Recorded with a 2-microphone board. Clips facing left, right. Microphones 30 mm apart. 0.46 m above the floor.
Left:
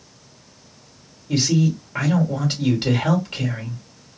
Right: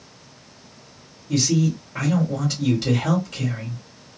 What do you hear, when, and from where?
1.3 s a man speaking: 25° left (ahead or behind), 1.7 m